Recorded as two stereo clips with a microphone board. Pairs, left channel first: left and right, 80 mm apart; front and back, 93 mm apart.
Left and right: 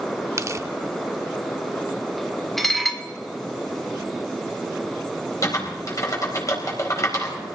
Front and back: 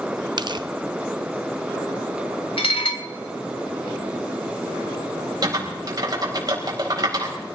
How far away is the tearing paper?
About 0.6 m.